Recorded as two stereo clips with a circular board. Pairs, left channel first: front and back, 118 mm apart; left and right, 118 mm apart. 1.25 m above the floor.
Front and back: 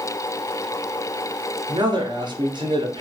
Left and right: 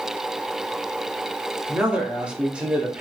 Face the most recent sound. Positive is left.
turn(degrees=-165)